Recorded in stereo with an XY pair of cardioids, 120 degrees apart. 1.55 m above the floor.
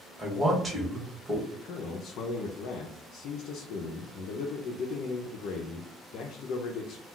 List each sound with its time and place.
0.2 s a man speaking: 10° right, 1.5 m
1.5 s a man speaking: 70° left, 0.5 m